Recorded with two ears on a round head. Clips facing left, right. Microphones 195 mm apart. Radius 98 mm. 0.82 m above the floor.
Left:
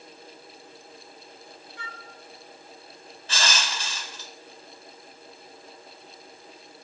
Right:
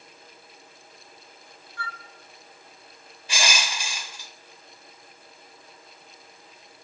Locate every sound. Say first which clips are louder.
1.8 s a flute: right 6 dB; 20° left (ahead or behind), 1.5 m
3.3 s crushing: right 1 dB; 10° right (ahead or behind), 1.5 m